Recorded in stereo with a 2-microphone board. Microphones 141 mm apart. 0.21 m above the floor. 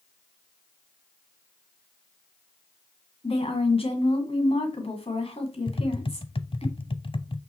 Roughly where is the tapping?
Left.